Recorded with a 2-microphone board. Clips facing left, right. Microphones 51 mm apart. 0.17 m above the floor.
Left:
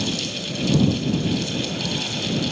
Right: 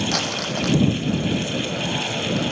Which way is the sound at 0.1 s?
75° right (ahead or behind).